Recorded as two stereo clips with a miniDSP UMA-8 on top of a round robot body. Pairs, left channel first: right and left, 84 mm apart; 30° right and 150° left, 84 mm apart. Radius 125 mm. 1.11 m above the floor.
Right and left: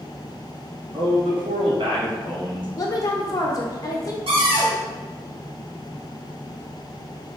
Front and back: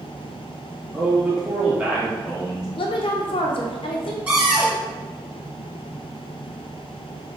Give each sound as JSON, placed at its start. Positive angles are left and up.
{"t": 0.9, "sound": "a man speaking", "azimuth_deg": 65, "distance_m": 1.5}
{"t": 2.8, "sound": "a woman speaking", "azimuth_deg": -40, "distance_m": 0.7}
{"t": 4.3, "sound": "a cupboard door", "azimuth_deg": 70, "distance_m": 1.9}